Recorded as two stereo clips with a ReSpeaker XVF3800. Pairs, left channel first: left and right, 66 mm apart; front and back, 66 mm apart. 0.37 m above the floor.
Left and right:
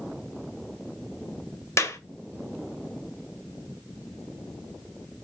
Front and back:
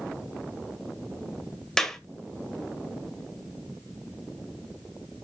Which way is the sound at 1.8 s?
75° left.